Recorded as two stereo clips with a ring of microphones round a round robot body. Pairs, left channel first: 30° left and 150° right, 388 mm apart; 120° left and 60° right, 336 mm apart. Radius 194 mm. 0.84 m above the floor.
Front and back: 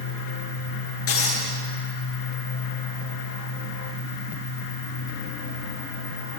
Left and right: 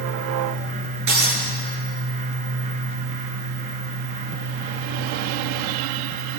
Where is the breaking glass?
25° right, 9.5 m.